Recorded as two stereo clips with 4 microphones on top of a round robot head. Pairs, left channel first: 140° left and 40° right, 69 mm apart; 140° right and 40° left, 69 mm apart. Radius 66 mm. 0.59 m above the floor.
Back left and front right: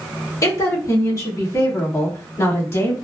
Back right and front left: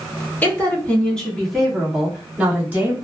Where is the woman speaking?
160° left, 1.8 m; by 3.0 s 100° left, 1.9 m.